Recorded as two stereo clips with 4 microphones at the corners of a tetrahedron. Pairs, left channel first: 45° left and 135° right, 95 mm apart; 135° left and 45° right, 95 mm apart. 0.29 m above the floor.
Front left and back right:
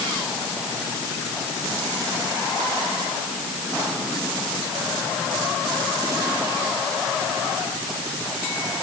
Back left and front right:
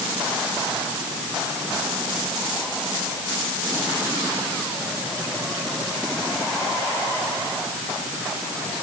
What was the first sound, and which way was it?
Only background noise.